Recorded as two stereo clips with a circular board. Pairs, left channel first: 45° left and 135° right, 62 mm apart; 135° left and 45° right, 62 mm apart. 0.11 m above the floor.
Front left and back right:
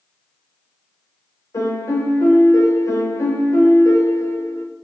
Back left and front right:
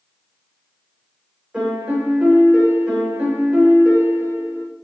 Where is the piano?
30° left, 4 m.